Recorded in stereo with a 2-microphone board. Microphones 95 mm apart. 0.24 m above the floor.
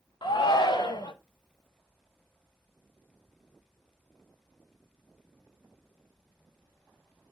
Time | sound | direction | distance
0.2 | a shout | 50° left (ahead or behind) | 1.5 m